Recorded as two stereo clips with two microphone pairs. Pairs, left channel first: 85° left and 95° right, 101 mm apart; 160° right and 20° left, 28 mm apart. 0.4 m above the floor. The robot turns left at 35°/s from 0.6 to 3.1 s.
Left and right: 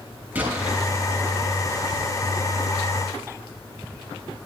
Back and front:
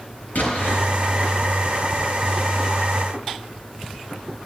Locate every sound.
0.3 s an explosion: 165° right, 5.5 m; by 0.8 s 170° right, 5.5 m